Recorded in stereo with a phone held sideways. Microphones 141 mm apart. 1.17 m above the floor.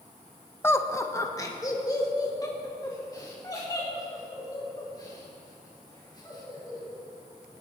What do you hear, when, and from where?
0.6 s laughter: 15° left (ahead or behind), 0.7 m; by 7.0 s 25° left (ahead or behind), 7 m